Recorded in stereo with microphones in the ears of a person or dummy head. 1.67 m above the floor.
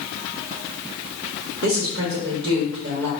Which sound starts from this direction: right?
A woman speaking, at 1.6 s.